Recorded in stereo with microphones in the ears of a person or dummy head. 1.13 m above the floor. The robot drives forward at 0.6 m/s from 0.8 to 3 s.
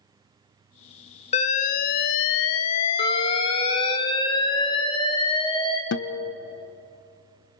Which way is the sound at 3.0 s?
20° left (ahead or behind).